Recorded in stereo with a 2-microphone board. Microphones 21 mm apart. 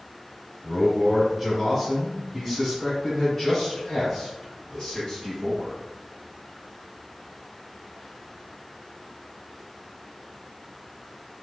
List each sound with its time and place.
0.6 s a man speaking: 10° right (ahead or behind), 1.8 m; by 5.8 s 35° left (ahead or behind), 3 m